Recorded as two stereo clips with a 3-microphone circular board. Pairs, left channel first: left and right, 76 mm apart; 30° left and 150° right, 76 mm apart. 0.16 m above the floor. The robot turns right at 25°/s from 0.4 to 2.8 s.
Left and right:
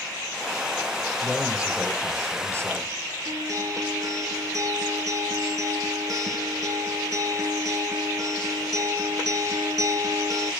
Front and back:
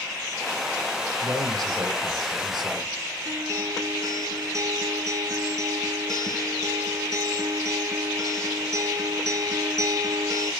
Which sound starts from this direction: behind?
A man speaking, at 1.2 s.